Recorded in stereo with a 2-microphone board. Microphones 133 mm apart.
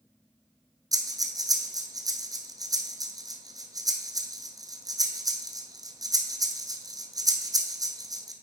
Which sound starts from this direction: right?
Breathing, at 0.9 s.